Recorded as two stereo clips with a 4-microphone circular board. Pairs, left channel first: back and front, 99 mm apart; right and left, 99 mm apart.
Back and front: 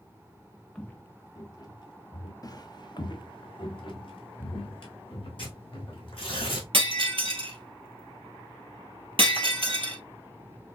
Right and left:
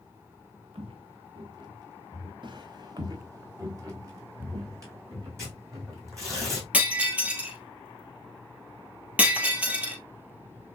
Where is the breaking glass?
15° left, 1.3 m.